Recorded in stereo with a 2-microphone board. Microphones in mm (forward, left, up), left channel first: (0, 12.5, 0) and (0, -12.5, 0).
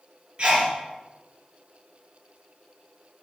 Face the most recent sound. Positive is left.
turn(degrees=-35)  # may be behind; listen again after turning